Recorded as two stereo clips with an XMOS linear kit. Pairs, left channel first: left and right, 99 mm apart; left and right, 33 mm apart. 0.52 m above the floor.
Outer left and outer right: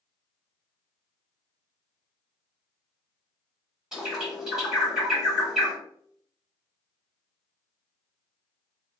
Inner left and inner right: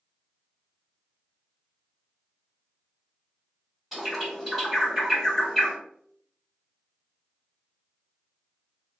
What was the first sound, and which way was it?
A bird, 5° right (ahead or behind).